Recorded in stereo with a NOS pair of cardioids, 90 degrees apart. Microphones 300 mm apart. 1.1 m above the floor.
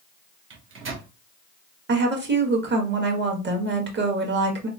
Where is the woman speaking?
35° right, 1.6 m.